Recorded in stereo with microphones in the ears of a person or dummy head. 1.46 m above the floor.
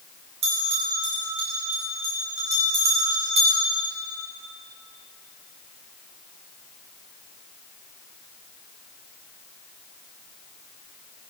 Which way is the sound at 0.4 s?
35° right (ahead or behind).